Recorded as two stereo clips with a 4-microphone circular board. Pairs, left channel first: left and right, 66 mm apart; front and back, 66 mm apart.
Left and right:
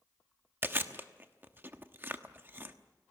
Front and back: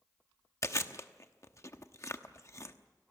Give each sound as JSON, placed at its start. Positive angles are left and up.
{"t": 0.6, "sound": "chewing", "azimuth_deg": -35, "distance_m": 1.1}